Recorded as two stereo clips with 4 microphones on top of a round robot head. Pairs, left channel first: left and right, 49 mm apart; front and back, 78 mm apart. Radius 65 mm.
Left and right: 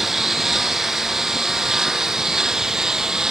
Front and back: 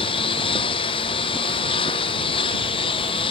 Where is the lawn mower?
5° right; by 3.3 s 10° right.